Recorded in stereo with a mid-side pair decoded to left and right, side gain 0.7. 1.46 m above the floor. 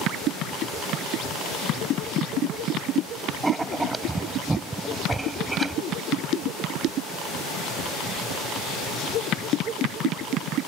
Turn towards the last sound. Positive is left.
turn(degrees=-15)